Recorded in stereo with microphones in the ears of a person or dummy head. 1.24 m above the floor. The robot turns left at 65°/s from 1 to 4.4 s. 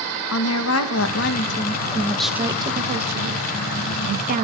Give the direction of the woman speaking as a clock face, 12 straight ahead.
9 o'clock.